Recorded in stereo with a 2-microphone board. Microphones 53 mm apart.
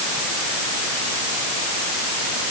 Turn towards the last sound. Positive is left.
No sound to turn to.